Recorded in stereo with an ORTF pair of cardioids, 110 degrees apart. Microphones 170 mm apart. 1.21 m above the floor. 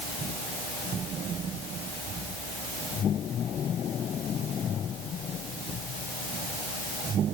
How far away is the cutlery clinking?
I don't hear cutlery clinking.